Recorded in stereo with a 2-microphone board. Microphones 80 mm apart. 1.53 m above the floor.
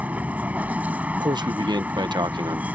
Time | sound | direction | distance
0.0 | a vehicle | 20° right (ahead or behind) | ?
1.2 | a man speaking | 65° right (ahead or behind) | ?